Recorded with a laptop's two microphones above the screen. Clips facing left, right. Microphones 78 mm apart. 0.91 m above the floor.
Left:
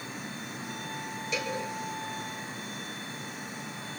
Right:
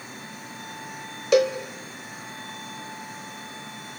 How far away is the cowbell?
About 1.5 m.